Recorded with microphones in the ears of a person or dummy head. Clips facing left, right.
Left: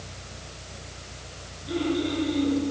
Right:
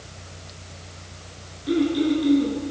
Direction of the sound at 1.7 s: 65° right (ahead or behind).